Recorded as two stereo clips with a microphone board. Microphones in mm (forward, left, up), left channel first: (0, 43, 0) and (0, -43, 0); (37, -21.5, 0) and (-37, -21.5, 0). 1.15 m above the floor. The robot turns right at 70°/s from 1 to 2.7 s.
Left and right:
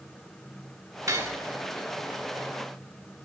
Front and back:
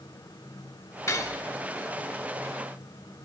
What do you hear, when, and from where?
1.1 s cutlery clinking: 45° right, 1.3 m; by 1.4 s 25° right, 1.3 m